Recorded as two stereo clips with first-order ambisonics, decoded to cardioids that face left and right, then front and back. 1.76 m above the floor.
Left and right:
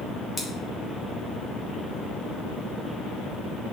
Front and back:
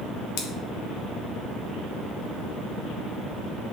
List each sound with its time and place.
0.4 s scissors: 10° left, 0.8 m